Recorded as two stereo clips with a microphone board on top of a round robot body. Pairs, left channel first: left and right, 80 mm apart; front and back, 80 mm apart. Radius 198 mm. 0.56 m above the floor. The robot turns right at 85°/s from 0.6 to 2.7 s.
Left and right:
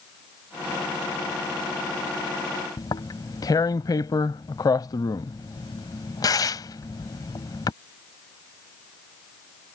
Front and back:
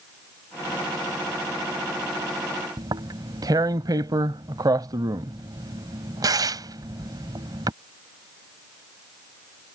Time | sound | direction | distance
2.8 | tearing paper | 135° left | ?